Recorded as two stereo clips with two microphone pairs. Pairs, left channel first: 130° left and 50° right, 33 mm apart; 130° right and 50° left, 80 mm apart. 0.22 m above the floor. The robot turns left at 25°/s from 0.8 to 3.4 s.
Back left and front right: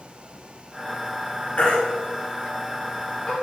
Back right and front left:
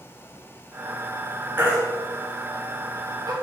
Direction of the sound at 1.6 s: 115° left.